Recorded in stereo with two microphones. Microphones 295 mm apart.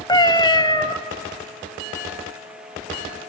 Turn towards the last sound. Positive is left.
turn(degrees=15)  # may be behind; listen again after turning